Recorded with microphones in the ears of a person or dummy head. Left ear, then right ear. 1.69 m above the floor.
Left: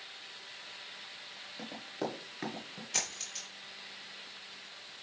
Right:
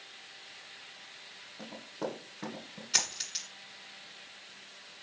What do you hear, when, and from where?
1.6 s running footsteps: 30° left (ahead or behind), 1.8 m; by 2.8 s 20° left (ahead or behind), 1.8 m
2.9 s a dropped coin: 25° right (ahead or behind), 1.9 m